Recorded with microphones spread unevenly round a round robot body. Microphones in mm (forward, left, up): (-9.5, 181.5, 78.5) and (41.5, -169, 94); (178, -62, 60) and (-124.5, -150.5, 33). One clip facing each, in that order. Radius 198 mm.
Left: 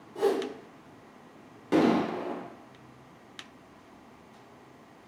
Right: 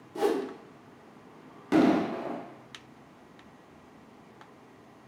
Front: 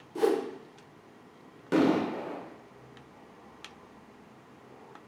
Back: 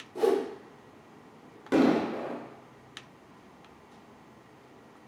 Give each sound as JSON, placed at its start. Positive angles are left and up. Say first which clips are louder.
{"t": 0.1, "sound": "a whoosh", "louder": "left 1 dB, back 1 dB", "azimuth_deg": -45, "distance_m": 0.8}
{"t": 1.7, "sound": "an explosion", "louder": "right 1 dB, back 1 dB", "azimuth_deg": -90, "distance_m": 0.9}